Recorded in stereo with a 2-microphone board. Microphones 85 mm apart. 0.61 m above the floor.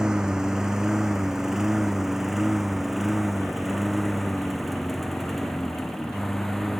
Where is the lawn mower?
10° right (ahead or behind); by 6.8 s 5° left (ahead or behind).